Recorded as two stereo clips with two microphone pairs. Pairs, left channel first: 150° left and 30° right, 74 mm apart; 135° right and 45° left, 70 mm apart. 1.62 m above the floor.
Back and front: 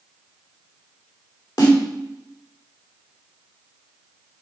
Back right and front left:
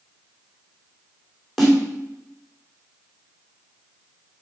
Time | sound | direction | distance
1.6 | a snare drum | 135° left | 2.5 m